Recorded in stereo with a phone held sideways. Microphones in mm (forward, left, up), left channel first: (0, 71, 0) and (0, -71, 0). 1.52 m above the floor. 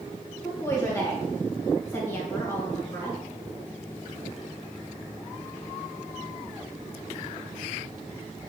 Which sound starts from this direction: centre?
A woman speaking, at 0.4 s.